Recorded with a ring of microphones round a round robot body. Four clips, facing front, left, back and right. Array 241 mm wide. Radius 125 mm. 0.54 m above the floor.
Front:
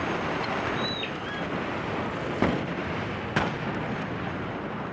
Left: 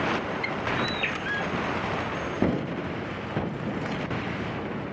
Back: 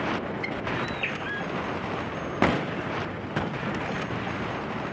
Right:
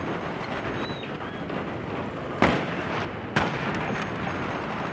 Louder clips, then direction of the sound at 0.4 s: Left 1 dB, front 1 dB; 105° left.